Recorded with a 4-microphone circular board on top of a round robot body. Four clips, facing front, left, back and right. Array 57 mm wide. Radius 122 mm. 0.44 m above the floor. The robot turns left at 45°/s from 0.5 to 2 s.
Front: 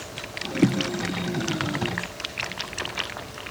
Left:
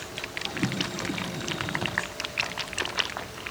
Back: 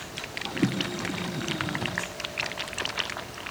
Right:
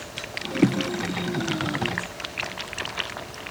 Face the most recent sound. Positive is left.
No sound to turn to.